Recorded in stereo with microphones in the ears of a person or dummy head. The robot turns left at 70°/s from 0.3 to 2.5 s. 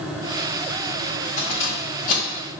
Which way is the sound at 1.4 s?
65° left (ahead or behind).